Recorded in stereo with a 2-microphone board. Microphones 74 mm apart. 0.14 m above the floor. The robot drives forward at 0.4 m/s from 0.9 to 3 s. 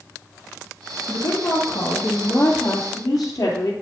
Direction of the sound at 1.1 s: 65° left (ahead or behind).